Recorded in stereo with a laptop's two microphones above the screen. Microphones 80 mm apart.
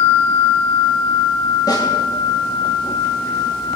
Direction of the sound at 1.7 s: 50° left (ahead or behind).